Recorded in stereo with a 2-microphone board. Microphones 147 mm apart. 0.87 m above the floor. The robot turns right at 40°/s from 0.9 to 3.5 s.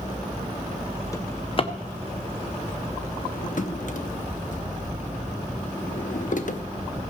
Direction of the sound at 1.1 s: 20° left (ahead or behind).